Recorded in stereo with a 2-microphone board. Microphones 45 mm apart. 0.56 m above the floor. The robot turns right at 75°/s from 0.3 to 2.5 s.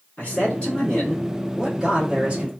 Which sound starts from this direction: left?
A man speaking, at 0.2 s.